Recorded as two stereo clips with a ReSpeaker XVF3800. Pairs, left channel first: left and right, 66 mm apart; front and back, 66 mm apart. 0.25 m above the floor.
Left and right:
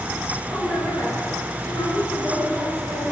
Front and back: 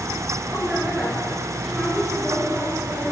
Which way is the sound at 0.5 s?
105° left.